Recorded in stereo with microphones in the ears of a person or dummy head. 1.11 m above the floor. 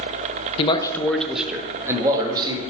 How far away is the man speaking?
About 0.7 m.